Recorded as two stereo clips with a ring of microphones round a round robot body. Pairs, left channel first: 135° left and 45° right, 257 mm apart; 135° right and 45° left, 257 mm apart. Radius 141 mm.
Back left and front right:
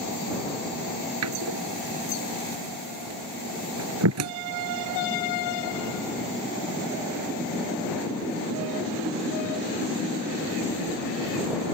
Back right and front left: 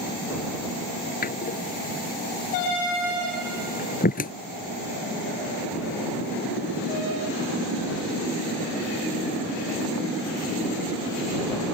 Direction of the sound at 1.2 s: 75° right.